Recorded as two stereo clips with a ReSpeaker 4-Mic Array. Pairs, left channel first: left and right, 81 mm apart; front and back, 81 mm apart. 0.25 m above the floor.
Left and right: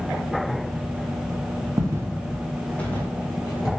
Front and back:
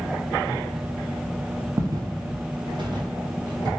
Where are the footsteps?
135° right, 0.6 m; by 3.7 s 145° left, 1.2 m.